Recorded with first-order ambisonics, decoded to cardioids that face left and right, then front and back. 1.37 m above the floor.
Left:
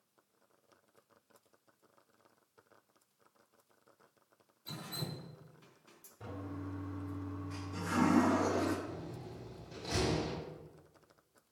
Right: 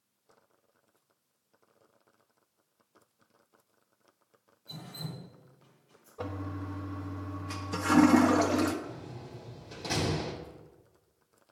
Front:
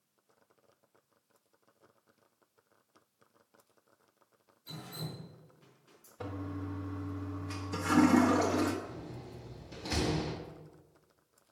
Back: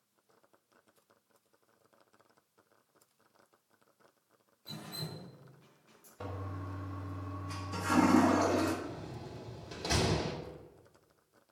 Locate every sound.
4.7 s dripping: 90° left, 4 m
6.2 s a toilet flushing: 85° right, 1.6 m
8.8 s a door slam: 145° right, 3.5 m